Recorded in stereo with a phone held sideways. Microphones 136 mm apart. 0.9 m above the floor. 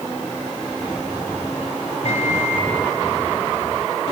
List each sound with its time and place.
2.0 s a microwave: 55° left (ahead or behind), 4.5 m